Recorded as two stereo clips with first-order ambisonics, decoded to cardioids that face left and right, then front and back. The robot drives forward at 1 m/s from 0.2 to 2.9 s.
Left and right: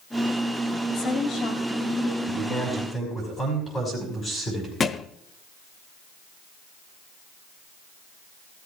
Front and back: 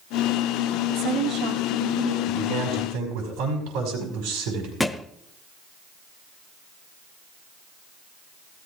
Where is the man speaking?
160° left, 4.5 m.